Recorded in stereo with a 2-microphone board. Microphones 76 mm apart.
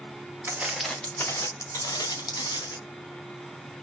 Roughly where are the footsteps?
Right.